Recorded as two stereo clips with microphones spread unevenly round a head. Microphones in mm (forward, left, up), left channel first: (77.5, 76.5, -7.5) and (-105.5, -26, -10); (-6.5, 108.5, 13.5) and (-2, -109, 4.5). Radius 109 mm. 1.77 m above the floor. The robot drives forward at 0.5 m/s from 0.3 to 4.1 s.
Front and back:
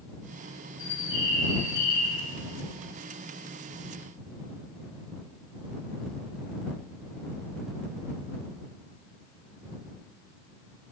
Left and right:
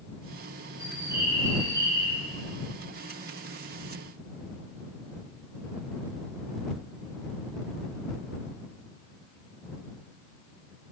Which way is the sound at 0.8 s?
10° right.